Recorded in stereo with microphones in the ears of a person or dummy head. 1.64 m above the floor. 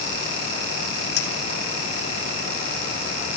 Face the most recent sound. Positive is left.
turn(degrees=70)  # may be behind; listen again after turning